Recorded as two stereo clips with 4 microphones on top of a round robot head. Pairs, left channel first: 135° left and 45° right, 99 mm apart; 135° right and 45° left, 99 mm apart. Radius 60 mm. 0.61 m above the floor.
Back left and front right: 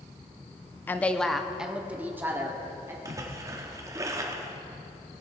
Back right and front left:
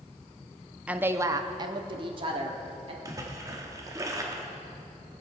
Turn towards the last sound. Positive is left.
turn(degrees=0)